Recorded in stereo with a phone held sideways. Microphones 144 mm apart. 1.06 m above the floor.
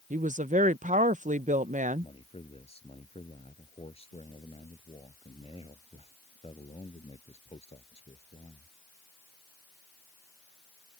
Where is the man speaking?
40° left (ahead or behind).